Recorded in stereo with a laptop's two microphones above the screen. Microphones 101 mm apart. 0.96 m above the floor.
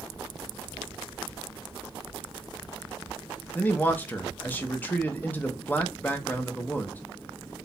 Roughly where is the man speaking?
Centre.